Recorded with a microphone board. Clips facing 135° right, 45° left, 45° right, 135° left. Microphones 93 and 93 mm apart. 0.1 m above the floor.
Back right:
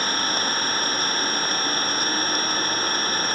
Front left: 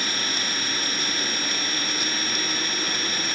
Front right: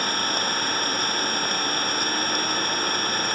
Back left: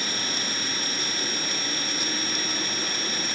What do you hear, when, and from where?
0.0 s an engine running: 85° right